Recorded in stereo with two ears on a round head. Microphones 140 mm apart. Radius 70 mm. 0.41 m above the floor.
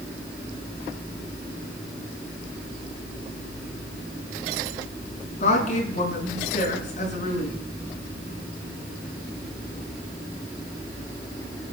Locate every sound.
5.4 s a woman speaking: 50° left (ahead or behind), 6 m